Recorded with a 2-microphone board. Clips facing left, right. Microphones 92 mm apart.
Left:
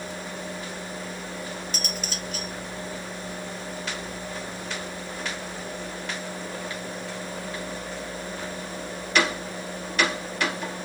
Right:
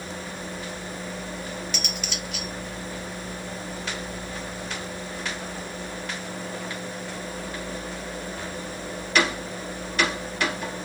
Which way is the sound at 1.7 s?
40° left (ahead or behind).